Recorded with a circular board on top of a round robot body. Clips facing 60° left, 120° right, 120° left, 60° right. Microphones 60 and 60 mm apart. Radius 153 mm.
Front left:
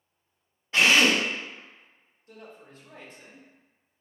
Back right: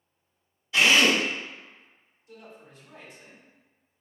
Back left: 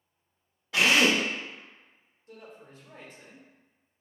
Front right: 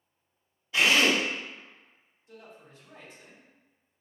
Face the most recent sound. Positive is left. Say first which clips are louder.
# front left 1 dB, back left 2 dB
turn(degrees=100)